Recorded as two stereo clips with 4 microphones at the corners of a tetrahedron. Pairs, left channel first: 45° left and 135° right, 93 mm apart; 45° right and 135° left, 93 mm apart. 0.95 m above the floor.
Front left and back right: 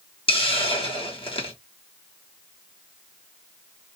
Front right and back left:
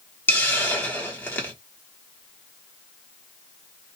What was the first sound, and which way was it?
A hiss, 25° left.